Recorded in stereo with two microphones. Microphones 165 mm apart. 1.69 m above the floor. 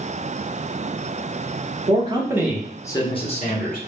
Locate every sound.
1.9 s a man speaking: 35° right (ahead or behind), 0.9 m; by 3.8 s 55° left (ahead or behind), 1.1 m